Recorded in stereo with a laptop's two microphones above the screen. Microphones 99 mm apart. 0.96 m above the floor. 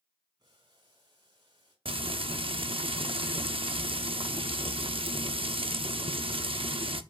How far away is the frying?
About 0.7 m.